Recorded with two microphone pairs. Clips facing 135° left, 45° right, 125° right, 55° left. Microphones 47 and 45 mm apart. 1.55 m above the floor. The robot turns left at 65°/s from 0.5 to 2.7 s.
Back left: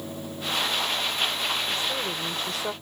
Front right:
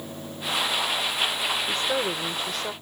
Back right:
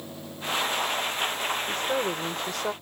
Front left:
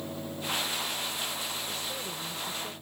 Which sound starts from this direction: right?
A woman speaking, at 1.7 s.